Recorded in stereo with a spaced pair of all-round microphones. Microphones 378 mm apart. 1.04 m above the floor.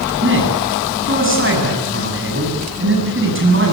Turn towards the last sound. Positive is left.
turn(degrees=-30)  # may be behind; listen again after turning